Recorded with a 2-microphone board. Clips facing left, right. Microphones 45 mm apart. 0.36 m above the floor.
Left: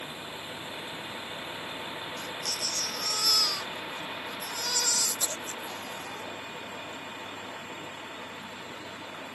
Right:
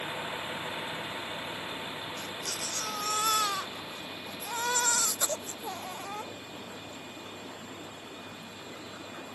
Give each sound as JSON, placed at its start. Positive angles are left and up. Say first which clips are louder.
{"t": 0.0, "sound": "a vehicle", "louder": "right 4 dB", "side_deg": -30}
{"t": 2.2, "sound": "a baby crying", "louder": "left 2 dB", "side_deg": -35}